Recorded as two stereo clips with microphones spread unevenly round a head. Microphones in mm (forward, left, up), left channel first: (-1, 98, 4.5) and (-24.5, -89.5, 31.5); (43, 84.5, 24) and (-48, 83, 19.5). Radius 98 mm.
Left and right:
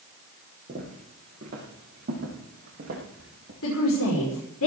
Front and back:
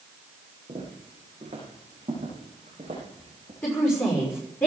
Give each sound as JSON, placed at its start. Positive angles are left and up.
{"t": 0.7, "sound": "footsteps", "azimuth_deg": -145, "distance_m": 6.0}
{"t": 3.6, "sound": "a woman speaking", "azimuth_deg": 70, "distance_m": 6.0}